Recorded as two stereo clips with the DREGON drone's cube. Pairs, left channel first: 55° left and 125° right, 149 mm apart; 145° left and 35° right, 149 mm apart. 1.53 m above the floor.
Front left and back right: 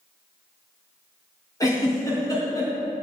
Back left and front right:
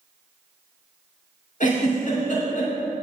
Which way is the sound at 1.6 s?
120° left.